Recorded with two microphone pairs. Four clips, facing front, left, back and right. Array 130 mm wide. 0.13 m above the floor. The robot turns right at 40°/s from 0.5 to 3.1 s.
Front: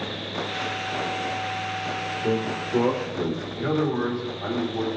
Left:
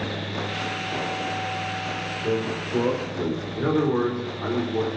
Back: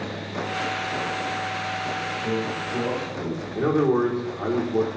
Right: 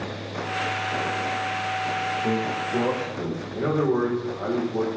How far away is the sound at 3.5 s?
About 4.5 m.